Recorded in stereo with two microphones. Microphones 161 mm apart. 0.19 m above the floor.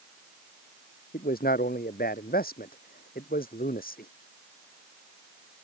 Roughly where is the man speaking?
Left.